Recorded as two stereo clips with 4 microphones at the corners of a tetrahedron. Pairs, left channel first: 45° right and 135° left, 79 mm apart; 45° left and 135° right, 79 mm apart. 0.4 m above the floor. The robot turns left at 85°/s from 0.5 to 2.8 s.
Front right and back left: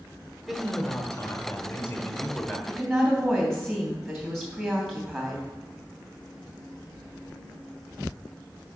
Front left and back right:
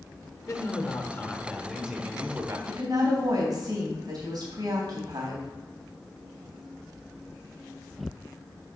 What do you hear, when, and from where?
0.5 s a man speaking: 55° left, 0.9 m; by 2.6 s 120° right, 0.9 m
2.7 s a woman speaking: 120° right, 3 m; by 5.4 s 130° right, 3 m